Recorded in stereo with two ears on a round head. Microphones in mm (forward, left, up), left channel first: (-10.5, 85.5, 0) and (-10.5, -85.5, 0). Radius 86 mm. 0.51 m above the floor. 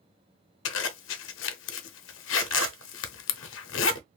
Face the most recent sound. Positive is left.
turn(degrees=70)  # may be behind; listen again after turning